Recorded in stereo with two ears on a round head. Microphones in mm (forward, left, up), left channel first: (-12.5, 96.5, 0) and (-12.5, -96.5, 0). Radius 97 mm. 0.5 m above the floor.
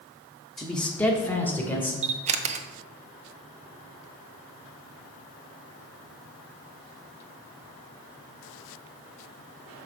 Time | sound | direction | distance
0.6 | a man speaking | centre (ahead or behind) | 0.9 m
2.0 | a camera shutter | 30° right (ahead or behind) | 0.5 m